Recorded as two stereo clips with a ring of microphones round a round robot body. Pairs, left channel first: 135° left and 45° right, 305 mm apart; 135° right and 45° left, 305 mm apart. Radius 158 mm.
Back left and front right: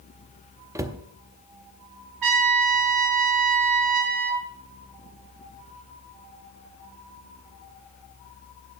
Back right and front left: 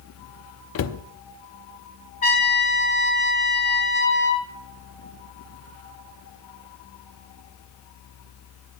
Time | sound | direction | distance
0.8 | a cupboard door | 120° right | 0.7 m
2.2 | a trumpet | 65° right | 3.5 m